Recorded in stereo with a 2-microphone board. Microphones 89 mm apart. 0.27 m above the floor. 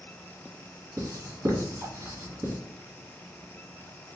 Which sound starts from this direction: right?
Writing, at 1.0 s.